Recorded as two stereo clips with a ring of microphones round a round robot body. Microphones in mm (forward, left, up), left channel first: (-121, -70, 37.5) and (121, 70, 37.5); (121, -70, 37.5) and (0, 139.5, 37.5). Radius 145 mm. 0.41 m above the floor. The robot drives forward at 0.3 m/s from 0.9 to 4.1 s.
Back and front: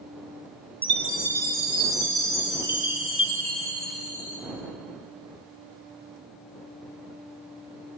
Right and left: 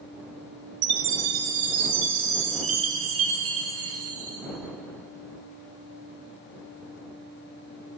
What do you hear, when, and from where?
0.8 s a chime: 125° left, 2 m; by 4.4 s 145° left, 2.5 m